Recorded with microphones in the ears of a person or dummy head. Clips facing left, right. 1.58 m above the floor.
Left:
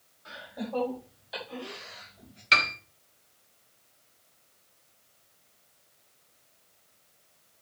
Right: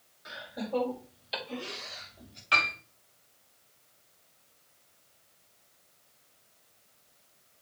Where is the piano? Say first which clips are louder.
Left 1 dB; 30° left (ahead or behind), 1.6 m.